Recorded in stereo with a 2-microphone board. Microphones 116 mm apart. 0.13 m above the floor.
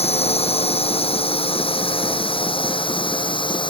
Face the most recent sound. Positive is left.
turn(degrees=45)  # may be behind; listen again after turning